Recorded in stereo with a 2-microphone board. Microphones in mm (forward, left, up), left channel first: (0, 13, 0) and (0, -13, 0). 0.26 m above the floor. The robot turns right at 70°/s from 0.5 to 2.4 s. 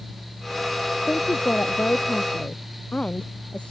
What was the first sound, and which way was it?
A man speaking, 45° left.